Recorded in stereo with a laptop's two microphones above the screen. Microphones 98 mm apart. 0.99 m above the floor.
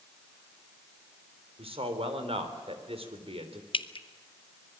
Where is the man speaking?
80° right, 3.5 m.